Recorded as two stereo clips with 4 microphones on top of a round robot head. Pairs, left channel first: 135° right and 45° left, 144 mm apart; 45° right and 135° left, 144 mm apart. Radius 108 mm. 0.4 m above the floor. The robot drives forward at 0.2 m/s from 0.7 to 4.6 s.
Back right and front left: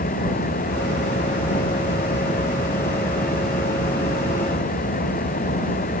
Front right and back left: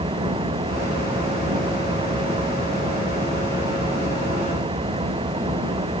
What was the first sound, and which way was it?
An engine running, 165° right.